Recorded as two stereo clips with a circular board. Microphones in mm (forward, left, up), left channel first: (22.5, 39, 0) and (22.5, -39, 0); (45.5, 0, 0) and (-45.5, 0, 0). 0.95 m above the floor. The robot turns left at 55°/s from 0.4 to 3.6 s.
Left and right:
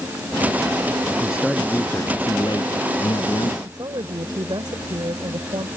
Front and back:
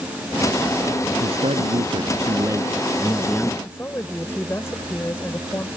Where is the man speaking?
165° right; by 3.5 s 65° left.